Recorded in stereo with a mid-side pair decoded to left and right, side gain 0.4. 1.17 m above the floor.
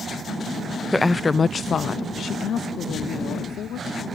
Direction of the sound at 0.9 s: 5° left.